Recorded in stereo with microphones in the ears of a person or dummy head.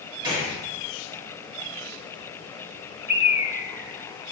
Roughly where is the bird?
Centre.